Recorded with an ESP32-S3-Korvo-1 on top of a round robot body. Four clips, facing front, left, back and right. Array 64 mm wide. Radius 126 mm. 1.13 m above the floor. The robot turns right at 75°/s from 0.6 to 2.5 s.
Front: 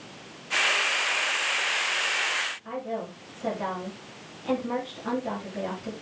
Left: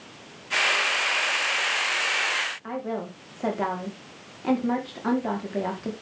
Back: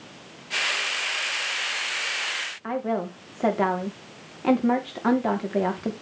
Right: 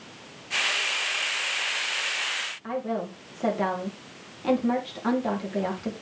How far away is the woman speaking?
About 3.5 m.